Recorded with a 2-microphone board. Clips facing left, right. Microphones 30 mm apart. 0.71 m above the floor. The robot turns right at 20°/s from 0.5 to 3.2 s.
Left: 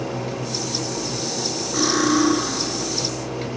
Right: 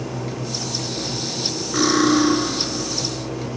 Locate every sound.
1.7 s cutlery clinking: 20° right (ahead or behind), 1.5 m; by 2.4 s 35° right (ahead or behind), 1.5 m